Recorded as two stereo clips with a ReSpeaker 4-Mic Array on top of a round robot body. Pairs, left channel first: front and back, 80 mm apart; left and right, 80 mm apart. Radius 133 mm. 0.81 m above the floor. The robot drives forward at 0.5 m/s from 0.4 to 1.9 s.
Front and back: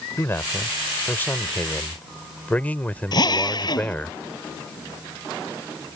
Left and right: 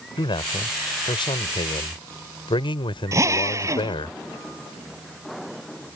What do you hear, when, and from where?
0.2 s a man speaking: 65° left; by 4.1 s 75° left
3.1 s a drill: 35° right